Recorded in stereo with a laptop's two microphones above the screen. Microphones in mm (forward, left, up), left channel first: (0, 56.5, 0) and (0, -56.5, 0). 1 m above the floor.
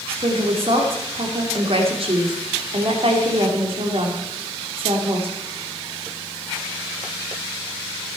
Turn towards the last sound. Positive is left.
turn(degrees=-55)  # may be behind; listen again after turning